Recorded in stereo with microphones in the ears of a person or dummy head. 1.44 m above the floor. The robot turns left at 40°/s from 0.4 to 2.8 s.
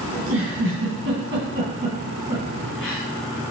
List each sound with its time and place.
0.1 s a giggle: 65° right (ahead or behind), 2.5 m; by 3.0 s 5° right (ahead or behind), 2.5 m